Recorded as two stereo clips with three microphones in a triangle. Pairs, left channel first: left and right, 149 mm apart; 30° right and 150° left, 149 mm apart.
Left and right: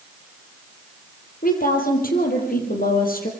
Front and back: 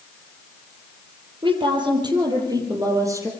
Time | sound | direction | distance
1.4 | a woman speaking | 95° left | 6 m